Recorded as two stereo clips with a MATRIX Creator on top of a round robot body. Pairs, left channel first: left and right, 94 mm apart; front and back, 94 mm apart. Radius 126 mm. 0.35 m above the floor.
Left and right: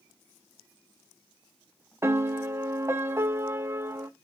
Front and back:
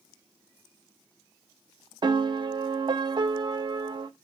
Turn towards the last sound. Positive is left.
turn(degrees=-150)